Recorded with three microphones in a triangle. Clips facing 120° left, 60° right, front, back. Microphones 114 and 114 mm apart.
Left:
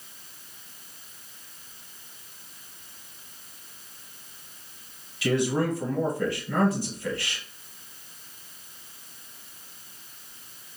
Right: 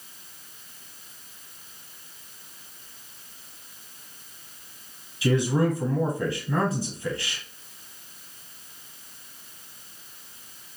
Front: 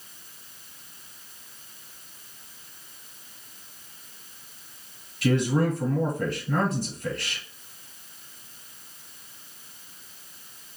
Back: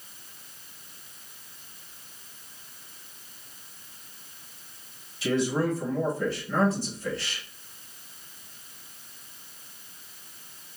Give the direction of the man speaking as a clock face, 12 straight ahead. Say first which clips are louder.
Right 2 dB, front 2 dB; 12 o'clock.